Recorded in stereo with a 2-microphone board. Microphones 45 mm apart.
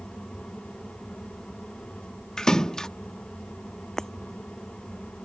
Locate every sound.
2.4 s a splash: 15° left (ahead or behind)
4.0 s breaking glass: 10° left (ahead or behind)